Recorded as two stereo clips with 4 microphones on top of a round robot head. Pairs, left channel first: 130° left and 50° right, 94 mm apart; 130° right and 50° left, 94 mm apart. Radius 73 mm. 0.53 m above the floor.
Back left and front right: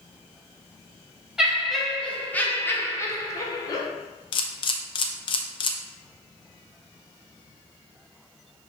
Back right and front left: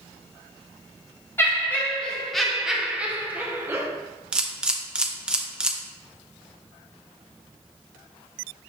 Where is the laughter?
125° right, 1.1 m; by 3.9 s 100° left, 1.4 m.